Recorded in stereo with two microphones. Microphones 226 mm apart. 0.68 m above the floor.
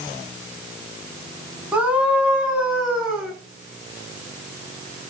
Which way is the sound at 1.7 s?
5° right (ahead or behind).